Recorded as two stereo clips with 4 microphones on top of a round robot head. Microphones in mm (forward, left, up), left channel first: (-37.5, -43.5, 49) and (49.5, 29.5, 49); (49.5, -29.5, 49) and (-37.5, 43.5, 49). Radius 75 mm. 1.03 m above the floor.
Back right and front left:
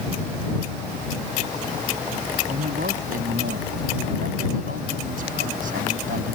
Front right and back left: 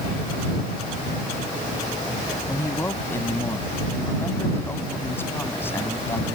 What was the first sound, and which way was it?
A man speaking, 35° left.